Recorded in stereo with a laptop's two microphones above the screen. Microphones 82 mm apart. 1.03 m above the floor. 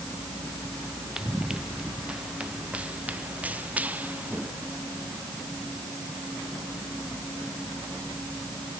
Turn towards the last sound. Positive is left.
turn(degrees=-20)  # may be behind; listen again after turning